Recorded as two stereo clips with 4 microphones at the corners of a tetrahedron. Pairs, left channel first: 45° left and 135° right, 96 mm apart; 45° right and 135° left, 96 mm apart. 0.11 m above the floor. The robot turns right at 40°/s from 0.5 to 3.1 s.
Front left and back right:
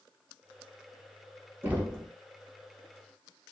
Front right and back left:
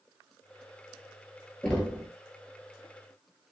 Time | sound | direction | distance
1.6 | knocking | 105° right | 1.1 m